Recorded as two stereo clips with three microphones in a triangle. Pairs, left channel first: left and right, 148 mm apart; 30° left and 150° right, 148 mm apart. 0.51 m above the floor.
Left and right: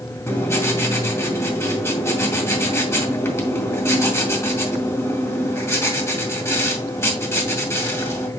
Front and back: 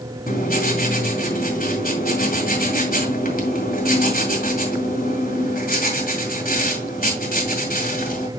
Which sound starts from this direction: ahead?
Writing, at 0.3 s.